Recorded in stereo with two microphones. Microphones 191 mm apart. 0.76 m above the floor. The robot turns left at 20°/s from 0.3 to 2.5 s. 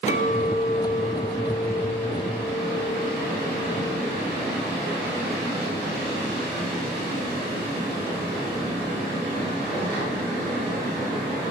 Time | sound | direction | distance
0.1 | a clink | 140° left | 5 m